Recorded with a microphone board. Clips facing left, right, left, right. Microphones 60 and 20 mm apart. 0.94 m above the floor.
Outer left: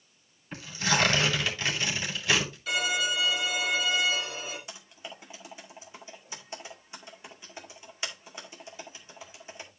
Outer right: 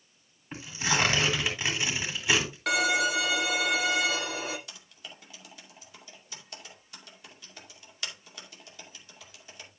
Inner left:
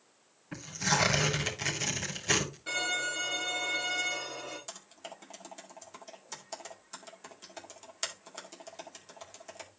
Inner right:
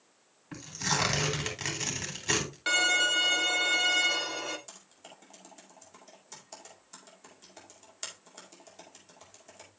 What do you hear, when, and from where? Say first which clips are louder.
0.5 s tearing paper: outer left 1 dB, inner left 1 dB; 15° right (ahead or behind), 3.5 m
2.7 s a violin: outer right 4 dB, inner right 9 dB; 65° right (ahead or behind), 1.5 m
4.7 s typing on a keyboard: outer left 4 dB, inner left 5 dB; 25° left (ahead or behind), 2 m